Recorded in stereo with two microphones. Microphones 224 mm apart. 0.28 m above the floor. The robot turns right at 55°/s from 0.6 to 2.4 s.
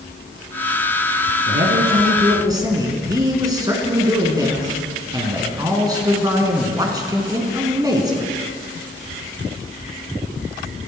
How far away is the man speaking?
About 3 m.